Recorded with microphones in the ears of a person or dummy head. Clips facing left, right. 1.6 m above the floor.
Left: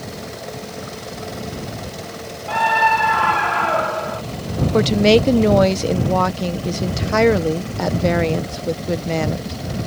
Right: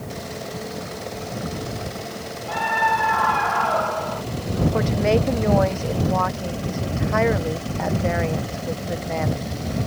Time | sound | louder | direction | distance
2.5 | a scream | left 5 dB | 60° left (ahead or behind) | ?
4.7 | a woman speaking | left 8 dB | 50° left (ahead or behind) | ?